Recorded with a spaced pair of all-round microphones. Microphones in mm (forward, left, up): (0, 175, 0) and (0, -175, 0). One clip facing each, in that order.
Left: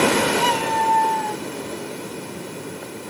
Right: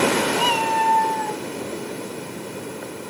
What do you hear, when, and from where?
0.4 s a cat meowing: 20° left (ahead or behind), 2.5 m; by 1.4 s 45° left (ahead or behind), 2.5 m